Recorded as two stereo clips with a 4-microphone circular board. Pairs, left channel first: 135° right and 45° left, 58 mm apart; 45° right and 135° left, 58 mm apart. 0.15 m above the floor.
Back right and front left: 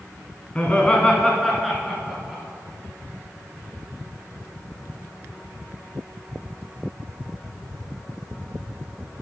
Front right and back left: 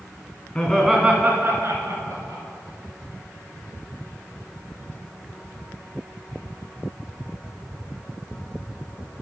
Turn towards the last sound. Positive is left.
turn(degrees=130)